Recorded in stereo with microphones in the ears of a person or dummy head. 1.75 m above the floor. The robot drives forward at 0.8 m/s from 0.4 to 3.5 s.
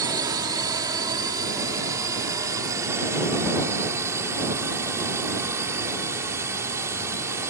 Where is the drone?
20° right (ahead or behind); by 7.5 s 15° right (ahead or behind).